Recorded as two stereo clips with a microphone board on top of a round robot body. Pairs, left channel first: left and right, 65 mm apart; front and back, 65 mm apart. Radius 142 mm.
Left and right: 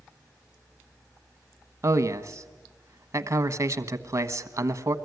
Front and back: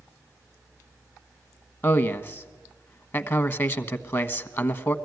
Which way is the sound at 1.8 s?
50° right.